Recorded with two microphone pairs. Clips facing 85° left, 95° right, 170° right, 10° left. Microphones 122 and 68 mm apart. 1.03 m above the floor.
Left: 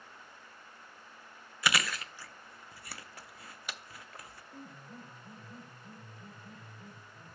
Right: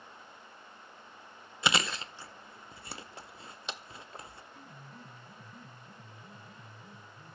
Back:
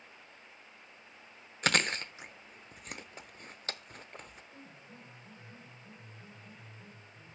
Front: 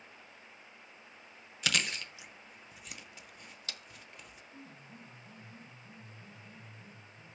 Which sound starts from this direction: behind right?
Chewing, at 1.6 s.